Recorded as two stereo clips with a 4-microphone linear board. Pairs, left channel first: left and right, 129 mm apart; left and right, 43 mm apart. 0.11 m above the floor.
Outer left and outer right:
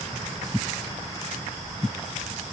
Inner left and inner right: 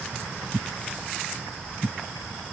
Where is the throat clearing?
I don't hear throat clearing.